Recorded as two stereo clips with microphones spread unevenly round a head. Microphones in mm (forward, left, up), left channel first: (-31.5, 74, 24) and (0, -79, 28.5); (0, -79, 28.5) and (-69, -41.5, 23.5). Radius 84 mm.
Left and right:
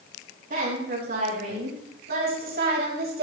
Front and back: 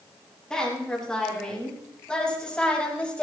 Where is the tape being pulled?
No tape being pulled in this recording.